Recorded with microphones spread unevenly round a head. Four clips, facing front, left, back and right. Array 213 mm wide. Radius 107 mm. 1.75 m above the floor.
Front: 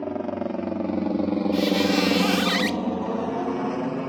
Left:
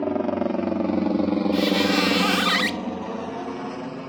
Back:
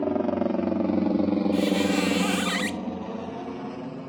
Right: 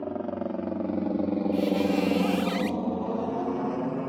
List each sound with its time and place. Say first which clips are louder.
0.0 s a helicopter: left 8 dB, back 3 dB; 125° left; by 4.1 s 25° right
1.5 s a squeak: left 3 dB, front 2 dB; 75° left